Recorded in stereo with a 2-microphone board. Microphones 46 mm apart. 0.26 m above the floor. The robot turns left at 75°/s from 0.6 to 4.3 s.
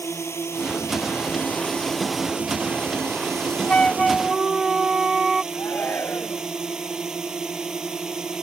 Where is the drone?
110° left; by 8.4 s 165° right.